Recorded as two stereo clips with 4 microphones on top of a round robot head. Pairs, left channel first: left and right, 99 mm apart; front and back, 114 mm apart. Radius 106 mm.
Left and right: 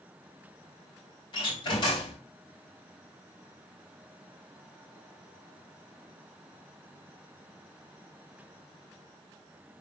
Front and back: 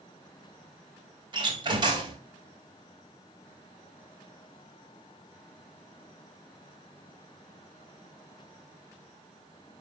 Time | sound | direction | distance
1.3 | a door slam | 135° left | 3.5 m